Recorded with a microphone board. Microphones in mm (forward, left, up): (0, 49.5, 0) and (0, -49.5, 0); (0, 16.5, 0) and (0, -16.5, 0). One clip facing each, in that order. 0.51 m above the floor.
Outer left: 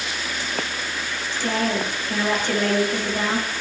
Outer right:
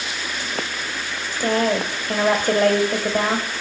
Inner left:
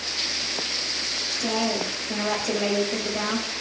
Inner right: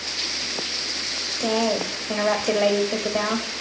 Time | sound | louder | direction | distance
1.3 | a woman speaking | outer right 4 dB, inner right 4 dB | 50° right (ahead or behind) | 2 m